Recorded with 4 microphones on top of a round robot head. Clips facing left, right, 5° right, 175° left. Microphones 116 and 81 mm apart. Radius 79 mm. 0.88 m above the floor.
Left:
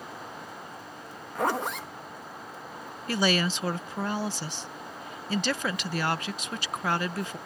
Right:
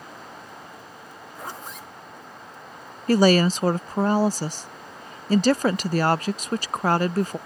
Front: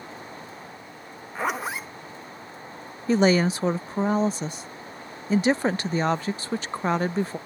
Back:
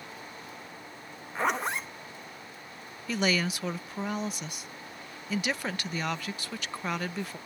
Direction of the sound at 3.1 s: 55° right.